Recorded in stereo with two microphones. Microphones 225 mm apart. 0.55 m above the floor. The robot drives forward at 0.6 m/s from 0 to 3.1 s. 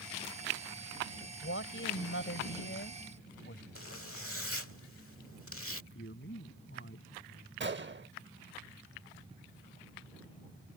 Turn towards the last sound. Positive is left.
turn(degrees=-50)  # may be behind; listen again after turning